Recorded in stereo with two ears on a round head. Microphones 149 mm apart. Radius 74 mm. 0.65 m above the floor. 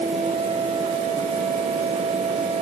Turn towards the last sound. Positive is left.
No sound to turn to.